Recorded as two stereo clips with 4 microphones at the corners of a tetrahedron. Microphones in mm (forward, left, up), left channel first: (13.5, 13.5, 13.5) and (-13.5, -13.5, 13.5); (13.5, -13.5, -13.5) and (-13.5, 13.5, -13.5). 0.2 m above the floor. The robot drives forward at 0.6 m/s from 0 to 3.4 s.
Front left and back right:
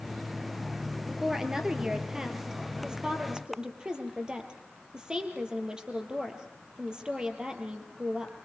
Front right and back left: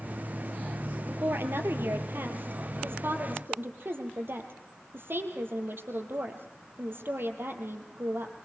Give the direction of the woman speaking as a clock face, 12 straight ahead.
7 o'clock.